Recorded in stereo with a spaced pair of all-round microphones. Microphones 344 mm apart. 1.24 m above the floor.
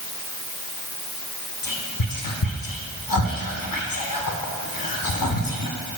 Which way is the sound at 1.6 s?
70° left (ahead or behind).